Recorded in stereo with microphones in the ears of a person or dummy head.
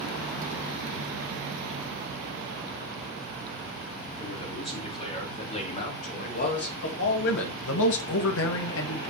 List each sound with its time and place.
4.2 s a man speaking: 25° left (ahead or behind), 4 m; by 9.1 s 65° left (ahead or behind), 1.7 m